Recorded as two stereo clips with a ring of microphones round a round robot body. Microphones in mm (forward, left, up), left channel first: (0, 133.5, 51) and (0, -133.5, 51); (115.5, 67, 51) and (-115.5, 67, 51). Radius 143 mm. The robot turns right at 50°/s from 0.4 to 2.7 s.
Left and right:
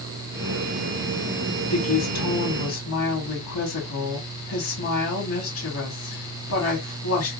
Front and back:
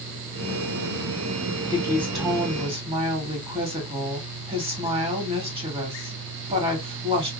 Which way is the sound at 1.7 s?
65° left.